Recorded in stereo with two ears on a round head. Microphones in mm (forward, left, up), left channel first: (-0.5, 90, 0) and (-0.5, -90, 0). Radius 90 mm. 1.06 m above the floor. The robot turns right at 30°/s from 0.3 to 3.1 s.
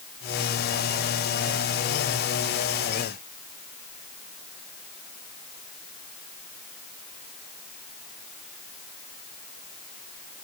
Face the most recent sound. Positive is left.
No sound to turn to.